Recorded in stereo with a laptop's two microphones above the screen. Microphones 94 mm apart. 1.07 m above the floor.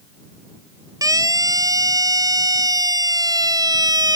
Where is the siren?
40° right (ahead or behind); by 4.2 s 45° right (ahead or behind).